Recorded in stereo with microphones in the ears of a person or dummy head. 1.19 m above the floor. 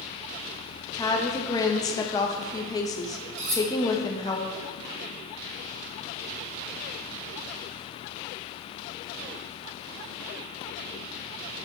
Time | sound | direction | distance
0.9 | a woman speaking | 20° left (ahead or behind) | 0.6 m
3.4 | cutlery clinking | 40° right (ahead or behind) | 1.9 m